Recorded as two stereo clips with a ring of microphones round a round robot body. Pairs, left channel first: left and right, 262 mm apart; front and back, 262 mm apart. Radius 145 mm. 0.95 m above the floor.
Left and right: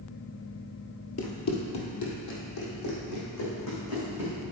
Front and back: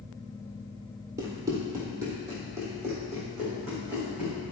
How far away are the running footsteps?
About 1.4 m.